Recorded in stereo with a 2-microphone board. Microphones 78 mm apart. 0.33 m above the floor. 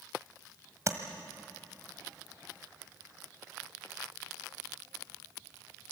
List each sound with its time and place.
0.9 s tapping: 40° right (ahead or behind), 1.6 m